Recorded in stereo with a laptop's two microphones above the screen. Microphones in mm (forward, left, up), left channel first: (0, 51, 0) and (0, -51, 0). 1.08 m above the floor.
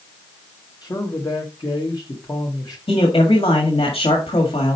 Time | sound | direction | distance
0.8 | a man speaking | 45° left (ahead or behind) | 1.0 m
2.9 | a man speaking | 70° left (ahead or behind) | 1.9 m